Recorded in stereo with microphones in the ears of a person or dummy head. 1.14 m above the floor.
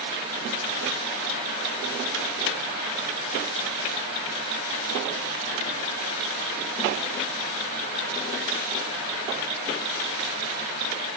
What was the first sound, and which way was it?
Only background noise.